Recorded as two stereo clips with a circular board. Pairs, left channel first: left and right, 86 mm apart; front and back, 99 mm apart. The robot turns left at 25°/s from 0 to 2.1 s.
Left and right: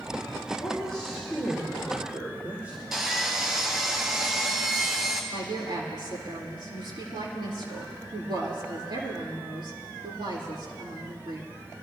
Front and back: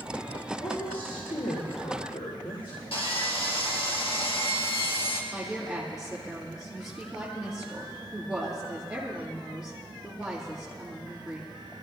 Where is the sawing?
5° right, 1.9 m.